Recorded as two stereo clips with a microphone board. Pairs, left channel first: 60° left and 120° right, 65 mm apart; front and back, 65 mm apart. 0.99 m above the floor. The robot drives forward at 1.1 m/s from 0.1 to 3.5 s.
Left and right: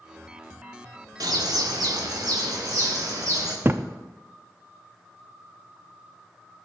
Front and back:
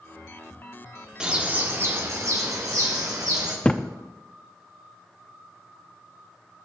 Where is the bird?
100° right, 1.3 m; by 3.5 s 155° right, 3 m.